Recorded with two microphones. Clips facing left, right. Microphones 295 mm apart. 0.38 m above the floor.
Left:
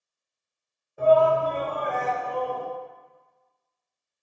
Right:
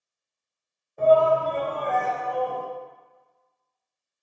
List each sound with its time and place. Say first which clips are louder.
1.0 s a shout: even; 5° left (ahead or behind), 0.9 m